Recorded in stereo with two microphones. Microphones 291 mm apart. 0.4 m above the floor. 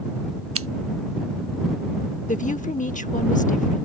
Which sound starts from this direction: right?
Scissors, at 0.6 s.